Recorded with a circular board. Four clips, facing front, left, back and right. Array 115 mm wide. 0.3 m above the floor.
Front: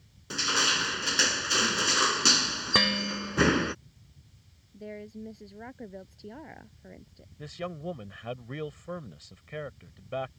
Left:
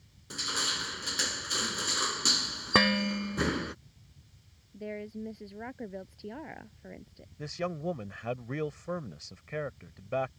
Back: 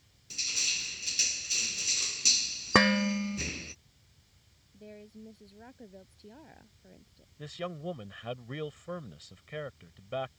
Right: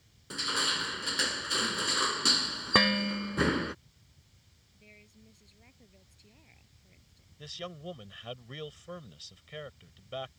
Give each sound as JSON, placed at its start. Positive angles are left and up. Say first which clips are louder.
{"t": 0.3, "sound": "crushing", "louder": "right 3 dB, front 15 dB", "azimuth_deg": -10}
{"t": 2.8, "sound": "dishes clattering", "louder": "left 1 dB, back 5 dB", "azimuth_deg": 170}
{"t": 4.7, "sound": "a woman speaking", "louder": "left 21 dB, front 8 dB", "azimuth_deg": 65}
{"t": 7.4, "sound": "a man speaking", "louder": "left 8 dB, front 1 dB", "azimuth_deg": 80}